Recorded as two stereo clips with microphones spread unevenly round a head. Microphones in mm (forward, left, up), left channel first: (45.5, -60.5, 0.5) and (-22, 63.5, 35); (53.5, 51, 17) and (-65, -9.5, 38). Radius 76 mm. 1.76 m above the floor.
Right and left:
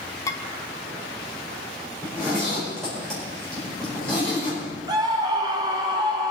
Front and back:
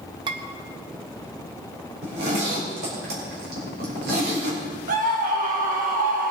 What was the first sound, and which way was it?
Dishes clattering, 140° right.